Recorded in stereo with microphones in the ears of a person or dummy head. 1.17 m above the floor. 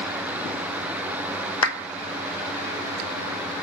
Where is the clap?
80° left, 1.1 m.